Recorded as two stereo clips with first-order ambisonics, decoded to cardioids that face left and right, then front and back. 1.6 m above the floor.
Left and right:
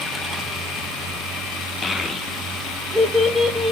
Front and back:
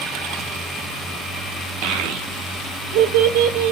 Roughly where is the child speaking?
Behind.